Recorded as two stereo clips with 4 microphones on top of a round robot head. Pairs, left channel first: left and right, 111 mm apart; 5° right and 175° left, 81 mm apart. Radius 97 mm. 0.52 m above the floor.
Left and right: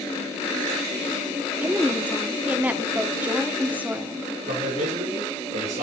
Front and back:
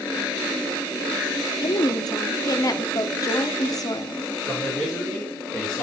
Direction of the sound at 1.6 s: 20° right.